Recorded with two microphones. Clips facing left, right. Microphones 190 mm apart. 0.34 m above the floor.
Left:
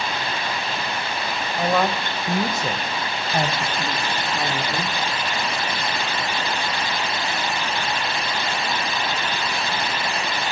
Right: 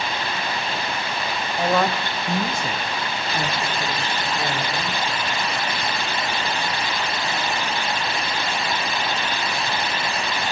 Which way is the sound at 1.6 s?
5° right (ahead or behind).